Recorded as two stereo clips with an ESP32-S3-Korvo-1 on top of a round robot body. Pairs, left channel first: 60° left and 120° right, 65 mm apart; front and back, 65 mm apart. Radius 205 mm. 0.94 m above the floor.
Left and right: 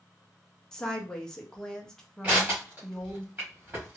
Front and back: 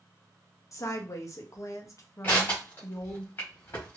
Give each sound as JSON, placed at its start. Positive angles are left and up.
{"t": 0.7, "sound": "a woman speaking", "azimuth_deg": -20, "distance_m": 1.1}
{"t": 2.2, "sound": "crushing", "azimuth_deg": -55, "distance_m": 1.5}